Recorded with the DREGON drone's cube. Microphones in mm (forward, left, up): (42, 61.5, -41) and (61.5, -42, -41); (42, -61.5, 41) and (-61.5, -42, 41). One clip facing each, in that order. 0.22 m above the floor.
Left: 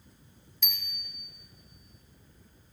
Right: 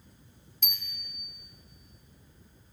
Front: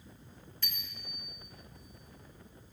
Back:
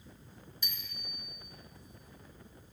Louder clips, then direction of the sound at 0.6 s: Left 1 dB, front 1 dB; 120° right.